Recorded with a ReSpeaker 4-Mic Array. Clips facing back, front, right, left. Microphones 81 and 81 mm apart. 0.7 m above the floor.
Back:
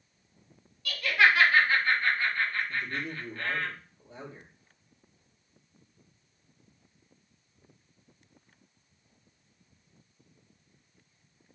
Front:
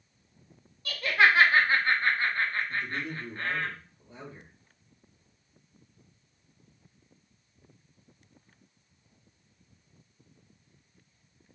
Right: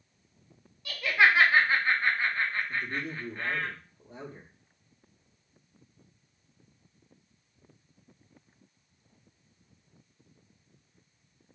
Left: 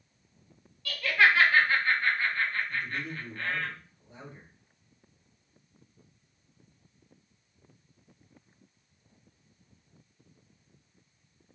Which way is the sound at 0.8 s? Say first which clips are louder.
Front 1 dB, even; 35° right.